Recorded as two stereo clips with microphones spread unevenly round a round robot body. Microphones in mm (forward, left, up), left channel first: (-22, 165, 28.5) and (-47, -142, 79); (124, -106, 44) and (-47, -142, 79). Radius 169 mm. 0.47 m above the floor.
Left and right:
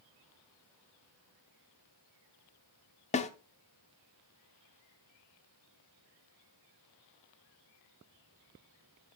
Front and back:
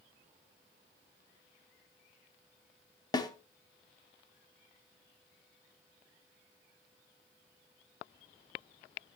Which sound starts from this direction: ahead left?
A snare drum, at 3.1 s.